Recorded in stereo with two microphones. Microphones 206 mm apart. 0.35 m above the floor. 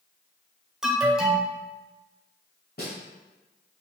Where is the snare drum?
55° left (ahead or behind), 1.2 m.